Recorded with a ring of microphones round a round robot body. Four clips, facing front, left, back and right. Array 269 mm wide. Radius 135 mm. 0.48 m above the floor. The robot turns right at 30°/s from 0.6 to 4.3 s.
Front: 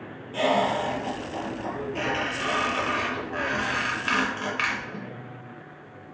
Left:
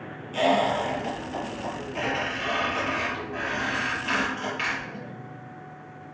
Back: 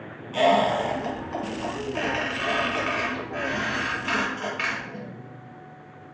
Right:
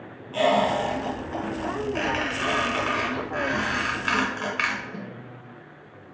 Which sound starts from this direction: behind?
A squeak, at 0.3 s.